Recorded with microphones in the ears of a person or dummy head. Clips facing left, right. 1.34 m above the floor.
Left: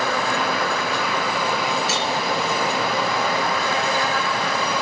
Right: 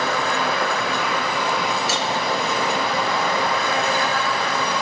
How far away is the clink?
About 2.5 m.